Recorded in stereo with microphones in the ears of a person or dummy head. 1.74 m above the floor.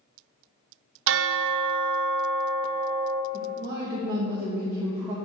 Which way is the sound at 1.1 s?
75° right (ahead or behind).